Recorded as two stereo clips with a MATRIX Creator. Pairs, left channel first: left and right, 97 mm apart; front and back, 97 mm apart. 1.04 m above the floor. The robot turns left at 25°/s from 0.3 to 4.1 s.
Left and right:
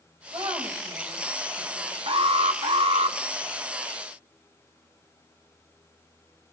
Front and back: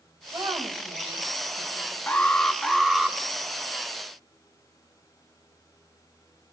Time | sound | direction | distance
0.3 | a woman speaking | 125° right | 5.5 m
2.1 | an alarm | 70° right | 1.1 m